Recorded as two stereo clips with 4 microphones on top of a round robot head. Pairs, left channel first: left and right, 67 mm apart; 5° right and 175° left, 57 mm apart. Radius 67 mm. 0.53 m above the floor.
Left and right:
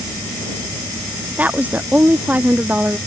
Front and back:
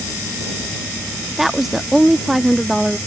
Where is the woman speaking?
100° right.